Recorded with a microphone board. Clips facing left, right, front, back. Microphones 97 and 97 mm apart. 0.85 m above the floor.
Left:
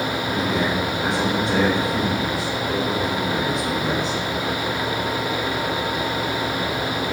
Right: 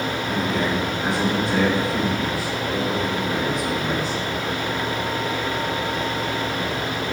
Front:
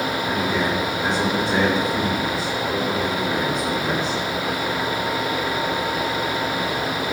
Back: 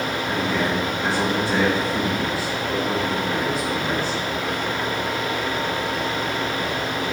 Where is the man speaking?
70° left, 3 m.